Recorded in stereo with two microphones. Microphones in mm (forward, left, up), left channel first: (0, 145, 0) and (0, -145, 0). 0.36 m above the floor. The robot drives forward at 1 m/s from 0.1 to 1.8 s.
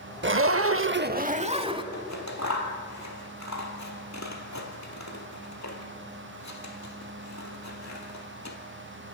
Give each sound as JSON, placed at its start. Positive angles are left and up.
{"t": 0.2, "sound": "a zipper", "side_deg": -40, "distance_m": 0.6}
{"t": 1.9, "sound": "scissors", "side_deg": 70, "distance_m": 2.0}